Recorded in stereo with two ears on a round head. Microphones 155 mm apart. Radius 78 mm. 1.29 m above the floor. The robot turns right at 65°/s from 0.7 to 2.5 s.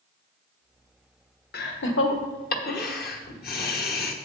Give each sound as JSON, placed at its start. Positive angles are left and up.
{"t": 1.5, "sound": "laughter", "side_deg": 55, "distance_m": 1.2}